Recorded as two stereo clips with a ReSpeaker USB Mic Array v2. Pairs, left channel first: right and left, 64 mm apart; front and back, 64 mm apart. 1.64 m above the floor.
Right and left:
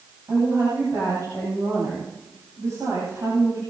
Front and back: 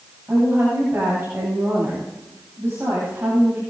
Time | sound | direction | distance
0.3 | a woman speaking | 125° left | 9.5 m